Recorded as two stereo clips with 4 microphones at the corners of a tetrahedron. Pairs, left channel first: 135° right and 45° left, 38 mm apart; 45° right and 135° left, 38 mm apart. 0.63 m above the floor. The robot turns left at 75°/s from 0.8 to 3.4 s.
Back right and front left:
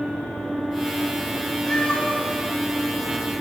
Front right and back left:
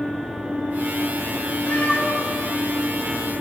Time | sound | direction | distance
1.7 | a cat meowing | 60° right | 1.0 m